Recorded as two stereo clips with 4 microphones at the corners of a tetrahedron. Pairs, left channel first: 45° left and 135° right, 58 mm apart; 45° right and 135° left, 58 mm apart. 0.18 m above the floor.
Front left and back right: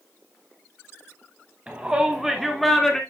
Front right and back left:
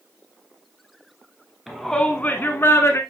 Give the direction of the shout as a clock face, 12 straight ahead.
5 o'clock.